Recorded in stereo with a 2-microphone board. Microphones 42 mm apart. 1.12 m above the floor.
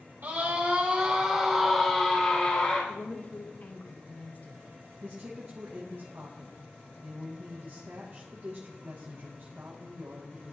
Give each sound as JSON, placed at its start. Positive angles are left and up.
{"t": 0.2, "sound": "a scream", "side_deg": -55, "distance_m": 2.5}
{"t": 2.9, "sound": "a woman speaking", "side_deg": 45, "distance_m": 1.2}
{"t": 5.0, "sound": "a woman speaking", "side_deg": -60, "distance_m": 1.3}